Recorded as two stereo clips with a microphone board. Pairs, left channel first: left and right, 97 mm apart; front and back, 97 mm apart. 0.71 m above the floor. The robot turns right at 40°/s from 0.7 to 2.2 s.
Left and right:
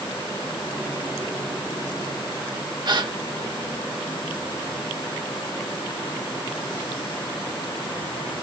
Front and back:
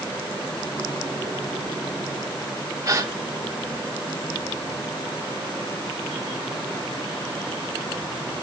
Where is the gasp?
125° right, 1.2 m.